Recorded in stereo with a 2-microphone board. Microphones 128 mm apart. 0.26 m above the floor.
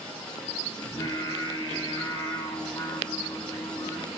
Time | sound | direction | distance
0.8 | singing | 40° left (ahead or behind) | 2.5 m